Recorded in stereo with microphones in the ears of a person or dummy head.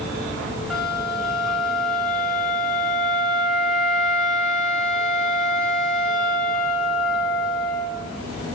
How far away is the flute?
About 3.5 m.